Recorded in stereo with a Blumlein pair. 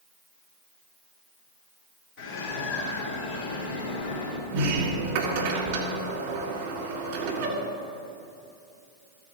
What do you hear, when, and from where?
2.2 s a bird: 35° left, 3 m
4.5 s a sliding door: 45° right, 1.9 m